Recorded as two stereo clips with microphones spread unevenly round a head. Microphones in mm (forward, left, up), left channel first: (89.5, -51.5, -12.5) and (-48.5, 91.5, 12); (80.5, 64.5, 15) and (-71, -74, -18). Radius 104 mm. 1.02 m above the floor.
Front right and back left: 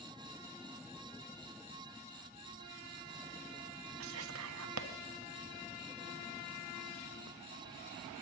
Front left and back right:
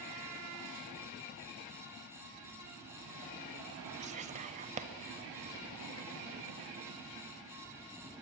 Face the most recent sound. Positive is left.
turn(degrees=165)